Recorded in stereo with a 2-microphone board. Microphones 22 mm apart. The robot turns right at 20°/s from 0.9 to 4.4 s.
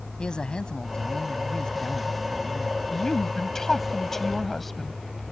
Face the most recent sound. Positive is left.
turn(degrees=10)  # may be behind; listen again after turning